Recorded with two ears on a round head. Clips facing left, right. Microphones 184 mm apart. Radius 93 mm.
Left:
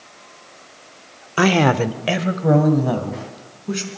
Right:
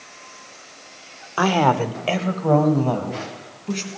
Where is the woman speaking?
30° left (ahead or behind), 0.8 m; by 3.9 s 10° left (ahead or behind), 4.5 m.